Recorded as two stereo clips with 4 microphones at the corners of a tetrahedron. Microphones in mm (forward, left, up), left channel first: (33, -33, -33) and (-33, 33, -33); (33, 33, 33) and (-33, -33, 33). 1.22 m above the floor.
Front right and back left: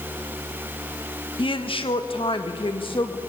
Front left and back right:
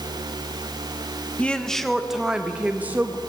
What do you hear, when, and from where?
1.4 s a woman speaking: 30° right, 1.4 m; by 3.2 s 70° right, 2 m